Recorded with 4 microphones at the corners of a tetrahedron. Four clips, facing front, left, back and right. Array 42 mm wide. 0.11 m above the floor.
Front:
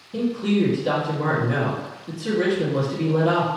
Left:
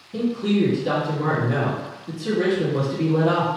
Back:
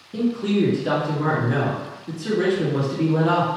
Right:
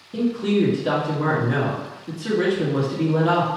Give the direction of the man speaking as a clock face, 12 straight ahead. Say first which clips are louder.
Right 1 dB, even; 4 o'clock.